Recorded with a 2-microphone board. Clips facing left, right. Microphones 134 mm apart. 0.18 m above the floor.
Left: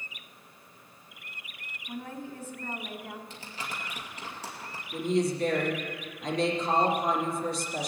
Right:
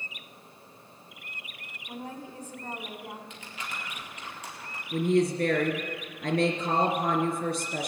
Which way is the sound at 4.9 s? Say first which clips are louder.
Right 3 dB; 60° right (ahead or behind).